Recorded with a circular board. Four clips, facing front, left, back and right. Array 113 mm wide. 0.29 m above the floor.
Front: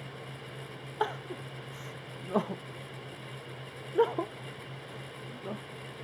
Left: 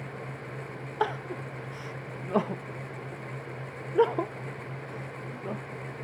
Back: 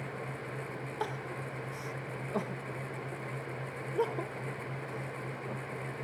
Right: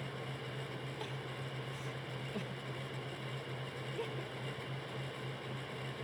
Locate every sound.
1.0 s crying: 70° left